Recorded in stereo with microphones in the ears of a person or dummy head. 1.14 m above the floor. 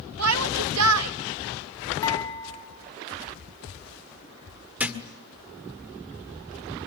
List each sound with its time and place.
0.2 s a shout: 80° right, 1.4 m
2.0 s dishes clattering: 15° left (ahead or behind), 6.5 m
4.8 s a thud: 5° right (ahead or behind), 1.6 m